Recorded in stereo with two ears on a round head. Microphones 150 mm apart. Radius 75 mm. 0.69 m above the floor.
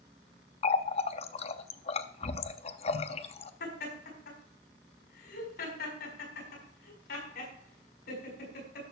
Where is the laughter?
60° left (ahead or behind), 5 m.